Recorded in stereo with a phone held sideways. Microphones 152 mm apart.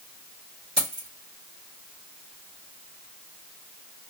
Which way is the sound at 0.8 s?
40° right (ahead or behind).